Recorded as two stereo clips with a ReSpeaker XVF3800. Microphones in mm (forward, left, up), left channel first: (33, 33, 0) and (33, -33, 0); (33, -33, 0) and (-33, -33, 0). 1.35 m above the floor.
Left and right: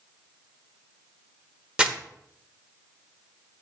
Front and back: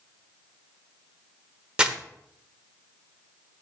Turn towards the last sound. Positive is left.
turn(degrees=-130)